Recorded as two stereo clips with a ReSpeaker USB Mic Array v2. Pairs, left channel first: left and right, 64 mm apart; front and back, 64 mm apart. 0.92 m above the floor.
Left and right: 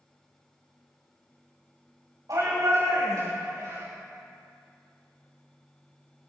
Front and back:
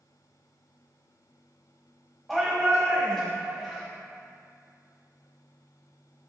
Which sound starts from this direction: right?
A shout, at 2.3 s.